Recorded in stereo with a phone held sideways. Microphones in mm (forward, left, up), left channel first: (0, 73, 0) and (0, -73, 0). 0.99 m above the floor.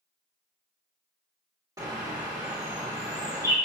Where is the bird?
25° right (ahead or behind), 0.9 m.